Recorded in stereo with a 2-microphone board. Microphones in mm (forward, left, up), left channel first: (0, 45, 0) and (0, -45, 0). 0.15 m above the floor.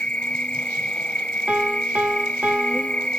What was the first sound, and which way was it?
An insect, 15° left (ahead or behind).